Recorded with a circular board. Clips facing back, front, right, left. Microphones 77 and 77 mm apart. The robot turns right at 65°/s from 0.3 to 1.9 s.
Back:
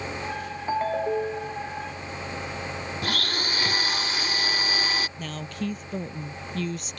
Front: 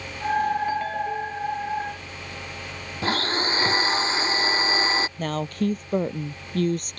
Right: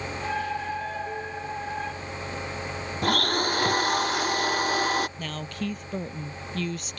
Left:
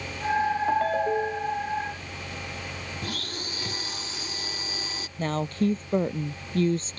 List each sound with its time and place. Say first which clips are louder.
0.7 s a ringtone: back 1 dB, left 8 dB; 115° left; by 1.6 s 170° left
3.0 s a blender: front 7 dB, right 16 dB; 60° right
5.2 s a woman speaking: front 7 dB, left 7 dB; 35° left